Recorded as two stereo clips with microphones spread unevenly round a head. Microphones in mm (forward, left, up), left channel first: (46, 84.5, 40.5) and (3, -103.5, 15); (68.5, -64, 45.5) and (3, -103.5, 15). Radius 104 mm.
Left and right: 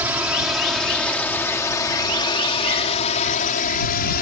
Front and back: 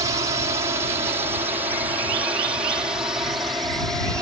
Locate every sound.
0.0 s a drone: 175° left; by 4.2 s 125° left